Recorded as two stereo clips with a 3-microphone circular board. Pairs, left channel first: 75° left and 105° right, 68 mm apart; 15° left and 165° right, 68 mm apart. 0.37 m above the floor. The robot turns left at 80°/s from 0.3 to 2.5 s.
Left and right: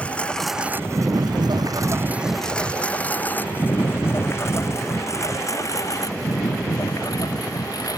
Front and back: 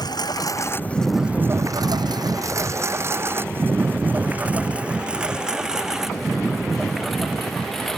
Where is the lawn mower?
5° left; by 8.0 s 100° left.